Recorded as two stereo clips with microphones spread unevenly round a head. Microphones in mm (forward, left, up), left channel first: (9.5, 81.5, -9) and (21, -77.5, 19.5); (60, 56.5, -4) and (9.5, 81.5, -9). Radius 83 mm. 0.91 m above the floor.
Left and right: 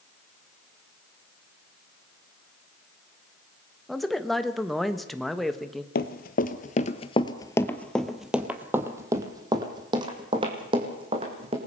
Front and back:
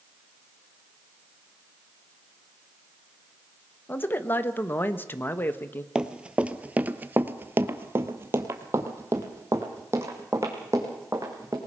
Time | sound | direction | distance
3.9 | a man speaking | 15° left | 1.2 m
6.0 | running footsteps | 80° left | 1.2 m